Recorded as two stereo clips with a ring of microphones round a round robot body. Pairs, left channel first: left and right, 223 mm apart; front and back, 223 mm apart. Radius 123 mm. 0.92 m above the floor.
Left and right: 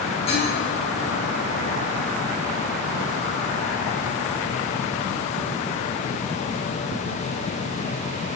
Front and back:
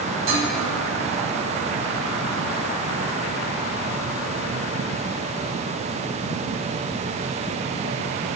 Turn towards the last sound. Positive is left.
turn(degrees=160)